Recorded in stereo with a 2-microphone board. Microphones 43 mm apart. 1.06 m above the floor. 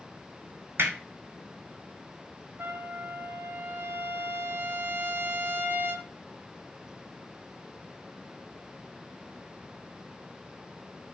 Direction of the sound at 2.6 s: 55° right (ahead or behind).